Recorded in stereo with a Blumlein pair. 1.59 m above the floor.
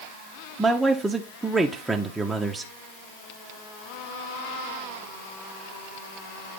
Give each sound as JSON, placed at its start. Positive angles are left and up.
{"t": 0.6, "sound": "a man speaking", "azimuth_deg": -10, "distance_m": 0.7}